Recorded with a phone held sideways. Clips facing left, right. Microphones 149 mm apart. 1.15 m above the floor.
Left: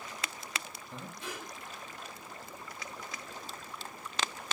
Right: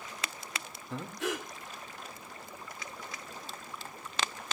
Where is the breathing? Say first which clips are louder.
Right 9 dB; 80° right, 2.5 m.